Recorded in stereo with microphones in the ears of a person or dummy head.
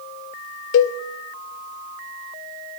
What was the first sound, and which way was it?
A cowbell, 60° left (ahead or behind).